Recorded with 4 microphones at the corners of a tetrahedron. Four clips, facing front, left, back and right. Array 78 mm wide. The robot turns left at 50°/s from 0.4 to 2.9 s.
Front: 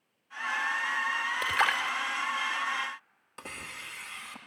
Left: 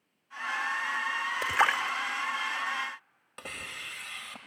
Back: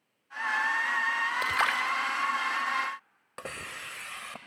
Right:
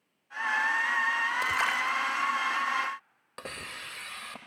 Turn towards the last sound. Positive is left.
turn(degrees=-160)